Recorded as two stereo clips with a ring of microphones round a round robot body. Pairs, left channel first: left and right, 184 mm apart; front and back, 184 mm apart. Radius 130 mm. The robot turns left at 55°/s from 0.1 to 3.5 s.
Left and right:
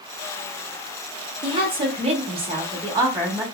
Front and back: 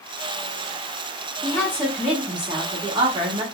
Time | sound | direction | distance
1.4 | a woman speaking | 55° right | 0.8 m